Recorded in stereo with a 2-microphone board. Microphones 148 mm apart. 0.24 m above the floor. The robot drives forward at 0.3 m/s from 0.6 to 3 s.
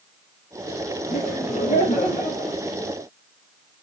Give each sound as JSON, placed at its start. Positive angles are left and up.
{"t": 1.1, "sound": "laughter", "side_deg": 50, "distance_m": 4.5}